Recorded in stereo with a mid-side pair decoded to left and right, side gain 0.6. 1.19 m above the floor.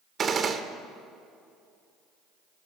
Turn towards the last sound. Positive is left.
turn(degrees=-40)